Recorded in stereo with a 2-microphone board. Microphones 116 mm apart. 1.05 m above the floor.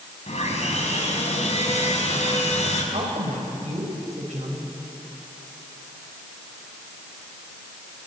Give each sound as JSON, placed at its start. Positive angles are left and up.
{"t": 0.3, "sound": "sawing", "side_deg": 70, "distance_m": 6.0}
{"t": 2.9, "sound": "a woman speaking", "side_deg": -85, "distance_m": 5.0}